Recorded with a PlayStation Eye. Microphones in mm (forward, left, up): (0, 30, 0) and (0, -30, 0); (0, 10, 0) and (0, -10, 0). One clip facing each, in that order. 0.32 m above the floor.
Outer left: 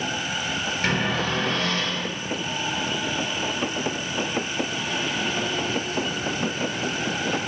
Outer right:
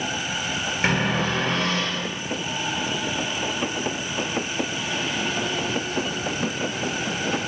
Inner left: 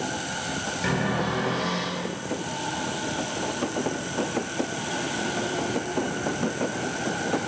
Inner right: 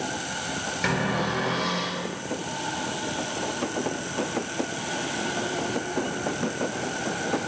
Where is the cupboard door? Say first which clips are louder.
Outer right 2 dB, inner right 1 dB; 30° right (ahead or behind), 2 m.